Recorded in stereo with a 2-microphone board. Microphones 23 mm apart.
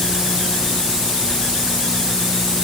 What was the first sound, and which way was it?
Only background noise.